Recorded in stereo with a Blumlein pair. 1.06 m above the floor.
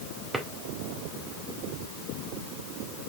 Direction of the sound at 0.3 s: 10° right.